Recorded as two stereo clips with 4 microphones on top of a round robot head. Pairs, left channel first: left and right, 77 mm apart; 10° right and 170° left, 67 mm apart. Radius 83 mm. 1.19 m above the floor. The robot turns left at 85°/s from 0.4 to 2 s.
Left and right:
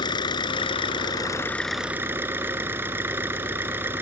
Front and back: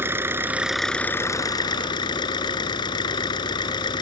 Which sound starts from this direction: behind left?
An engine running, at 0.0 s.